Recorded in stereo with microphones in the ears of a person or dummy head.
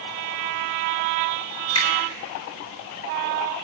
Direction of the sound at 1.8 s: 30° left (ahead or behind).